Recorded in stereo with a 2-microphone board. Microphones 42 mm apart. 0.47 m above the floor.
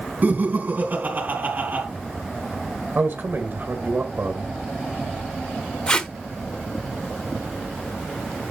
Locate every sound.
0.2 s laughter: 45° right (ahead or behind), 3.5 m
3.0 s a man speaking: 50° right (ahead or behind), 1.7 m
5.9 s tape being pulled: 20° left (ahead or behind), 1.0 m